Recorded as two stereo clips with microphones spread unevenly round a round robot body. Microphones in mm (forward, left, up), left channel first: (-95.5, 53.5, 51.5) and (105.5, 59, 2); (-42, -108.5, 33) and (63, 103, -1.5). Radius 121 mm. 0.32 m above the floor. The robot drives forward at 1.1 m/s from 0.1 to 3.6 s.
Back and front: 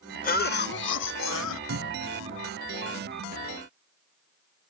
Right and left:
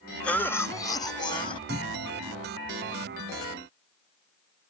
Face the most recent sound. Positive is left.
turn(degrees=-25)